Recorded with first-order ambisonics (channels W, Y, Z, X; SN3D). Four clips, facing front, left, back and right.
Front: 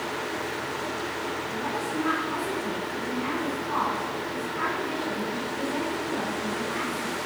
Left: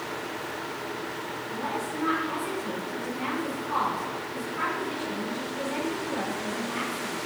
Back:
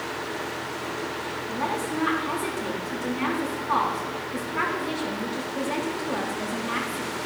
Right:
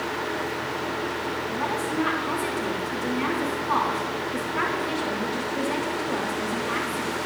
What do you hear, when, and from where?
1.5 s a woman speaking: 135° right, 3.5 m